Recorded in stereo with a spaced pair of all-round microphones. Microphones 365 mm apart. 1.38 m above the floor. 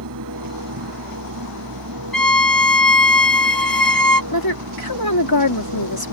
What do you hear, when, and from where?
0.0 s a machine running: 65° right (ahead or behind)
2.1 s a violin: 70° left (ahead or behind)
4.3 s a woman speaking: 85° left